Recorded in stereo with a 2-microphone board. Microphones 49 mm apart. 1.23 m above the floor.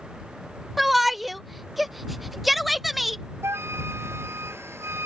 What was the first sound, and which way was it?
A shout, centre (ahead or behind).